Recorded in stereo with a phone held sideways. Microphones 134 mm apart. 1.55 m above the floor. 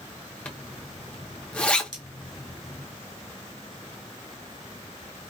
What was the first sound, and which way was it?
A zipper, 10° left (ahead or behind).